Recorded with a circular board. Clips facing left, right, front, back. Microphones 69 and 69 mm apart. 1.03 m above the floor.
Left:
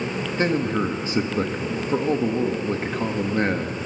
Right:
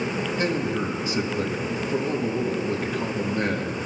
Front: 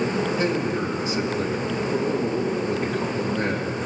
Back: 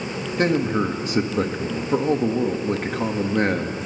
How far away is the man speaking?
About 1.6 m.